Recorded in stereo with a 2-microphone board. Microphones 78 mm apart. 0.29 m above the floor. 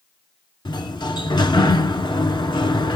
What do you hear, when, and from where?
0.7 s a sliding door: 75° left (ahead or behind), 0.6 m